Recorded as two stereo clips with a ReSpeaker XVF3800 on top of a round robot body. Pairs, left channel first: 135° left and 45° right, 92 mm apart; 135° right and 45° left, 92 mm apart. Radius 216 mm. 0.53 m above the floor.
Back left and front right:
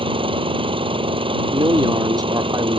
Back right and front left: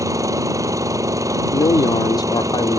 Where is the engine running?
15° right.